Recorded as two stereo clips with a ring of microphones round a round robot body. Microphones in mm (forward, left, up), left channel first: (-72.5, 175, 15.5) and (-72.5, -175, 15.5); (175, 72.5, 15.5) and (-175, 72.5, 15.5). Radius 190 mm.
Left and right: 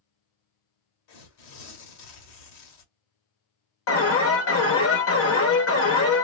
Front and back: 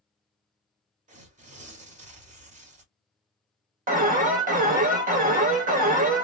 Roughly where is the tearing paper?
Left.